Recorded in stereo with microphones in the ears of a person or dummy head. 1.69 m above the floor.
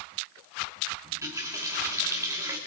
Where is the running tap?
15° right (ahead or behind), 3 m.